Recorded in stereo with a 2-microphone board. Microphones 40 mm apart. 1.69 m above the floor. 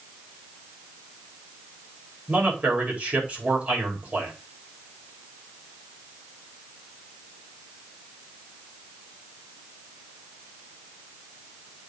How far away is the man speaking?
About 4.5 m.